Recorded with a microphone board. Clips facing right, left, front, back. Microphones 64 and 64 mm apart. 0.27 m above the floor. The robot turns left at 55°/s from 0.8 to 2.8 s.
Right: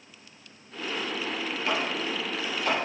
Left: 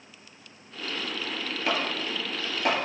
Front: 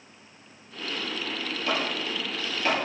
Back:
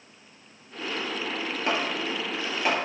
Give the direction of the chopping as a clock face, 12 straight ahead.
7 o'clock.